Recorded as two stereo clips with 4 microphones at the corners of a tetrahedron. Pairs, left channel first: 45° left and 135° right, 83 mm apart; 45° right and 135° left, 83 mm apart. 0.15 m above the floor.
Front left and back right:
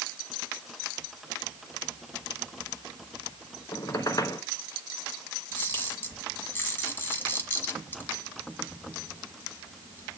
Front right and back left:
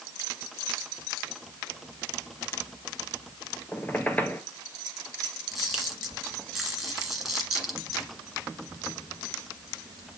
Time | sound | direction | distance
3.7 | a squeak | 20° left | 0.9 m
5.5 | a camera shutter | 55° left | 1.7 m